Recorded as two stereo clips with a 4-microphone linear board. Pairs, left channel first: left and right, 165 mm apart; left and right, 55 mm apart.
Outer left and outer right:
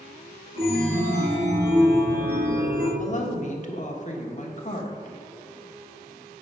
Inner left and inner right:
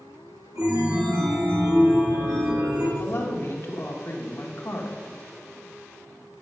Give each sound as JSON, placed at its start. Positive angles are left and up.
{"t": 0.6, "sound": "a chime", "side_deg": -70, "distance_m": 2.0}
{"t": 3.0, "sound": "a woman speaking", "side_deg": 50, "distance_m": 1.2}